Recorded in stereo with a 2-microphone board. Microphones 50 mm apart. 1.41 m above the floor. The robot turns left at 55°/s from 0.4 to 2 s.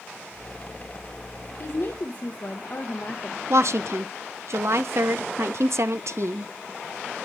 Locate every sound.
1.6 s a woman speaking: 65° left (ahead or behind), 1.0 m; by 3.4 s 40° left (ahead or behind), 1.0 m
3.5 s a woman speaking: 65° right (ahead or behind), 0.8 m